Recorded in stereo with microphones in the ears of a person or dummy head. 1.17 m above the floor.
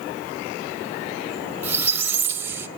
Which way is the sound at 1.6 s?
10° right (ahead or behind).